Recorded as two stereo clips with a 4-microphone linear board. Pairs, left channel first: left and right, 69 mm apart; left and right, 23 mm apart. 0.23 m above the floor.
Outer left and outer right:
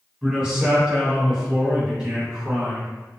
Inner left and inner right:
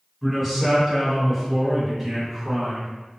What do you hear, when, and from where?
0.2 s a man speaking: 15° right (ahead or behind), 1.4 m